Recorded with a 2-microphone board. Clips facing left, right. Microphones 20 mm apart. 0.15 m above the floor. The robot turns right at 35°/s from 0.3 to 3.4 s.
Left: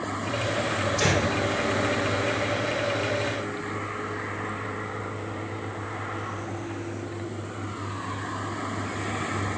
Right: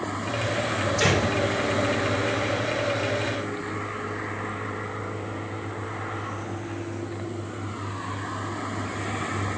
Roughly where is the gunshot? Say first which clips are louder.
Right 2 dB; centre.